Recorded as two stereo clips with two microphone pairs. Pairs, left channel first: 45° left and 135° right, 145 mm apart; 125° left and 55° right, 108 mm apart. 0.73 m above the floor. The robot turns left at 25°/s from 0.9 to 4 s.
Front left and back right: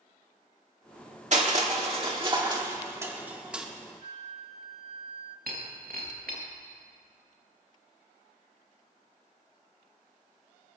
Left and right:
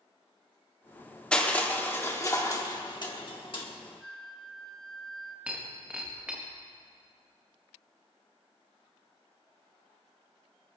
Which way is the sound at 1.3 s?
160° right.